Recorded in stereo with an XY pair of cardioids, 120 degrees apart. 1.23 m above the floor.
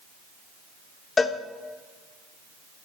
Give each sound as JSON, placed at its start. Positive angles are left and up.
{"t": 1.2, "sound": "a cowbell", "azimuth_deg": 30, "distance_m": 1.1}